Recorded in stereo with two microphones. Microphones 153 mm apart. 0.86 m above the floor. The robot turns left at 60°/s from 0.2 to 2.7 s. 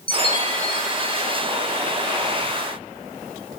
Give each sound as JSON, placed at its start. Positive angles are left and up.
{"t": 0.1, "sound": "a chime", "azimuth_deg": 35, "distance_m": 6.0}